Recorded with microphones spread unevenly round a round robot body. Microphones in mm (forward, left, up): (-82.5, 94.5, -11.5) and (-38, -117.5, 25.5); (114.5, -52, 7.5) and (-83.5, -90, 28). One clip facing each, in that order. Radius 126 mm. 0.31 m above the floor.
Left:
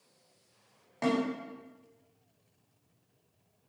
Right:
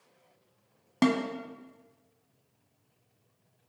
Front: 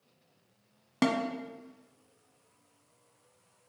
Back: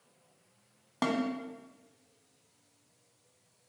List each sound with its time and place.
1.0 s a snare drum: 55° right, 0.9 m